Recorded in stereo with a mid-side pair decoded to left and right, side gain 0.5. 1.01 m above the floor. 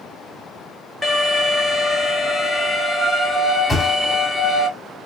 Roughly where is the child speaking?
I don't hear a child speaking.